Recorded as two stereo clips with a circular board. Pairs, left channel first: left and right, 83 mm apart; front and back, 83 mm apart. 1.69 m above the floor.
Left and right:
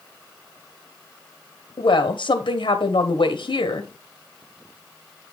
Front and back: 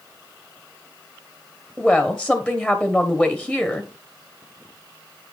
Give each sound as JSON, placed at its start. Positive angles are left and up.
{"t": 1.8, "sound": "a woman speaking", "azimuth_deg": 95, "distance_m": 1.1}